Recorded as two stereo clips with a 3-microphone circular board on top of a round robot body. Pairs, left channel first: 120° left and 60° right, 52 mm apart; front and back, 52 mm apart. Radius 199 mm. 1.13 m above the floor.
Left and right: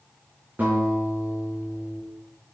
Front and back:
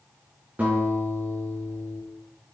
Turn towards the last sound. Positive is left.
turn(degrees=-115)